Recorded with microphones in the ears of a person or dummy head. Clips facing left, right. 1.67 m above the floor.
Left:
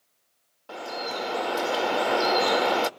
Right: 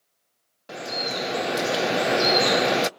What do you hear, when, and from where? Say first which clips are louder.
0.7 s dripping: right 2 dB; 30° right (ahead or behind), 0.5 m